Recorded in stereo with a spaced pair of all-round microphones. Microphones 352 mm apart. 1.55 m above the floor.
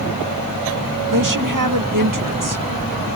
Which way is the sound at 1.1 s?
65° right (ahead or behind).